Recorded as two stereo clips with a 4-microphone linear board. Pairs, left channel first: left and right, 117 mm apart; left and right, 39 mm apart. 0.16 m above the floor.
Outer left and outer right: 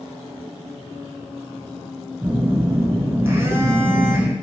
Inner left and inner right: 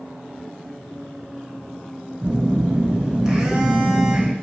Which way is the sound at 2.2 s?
20° right (ahead or behind).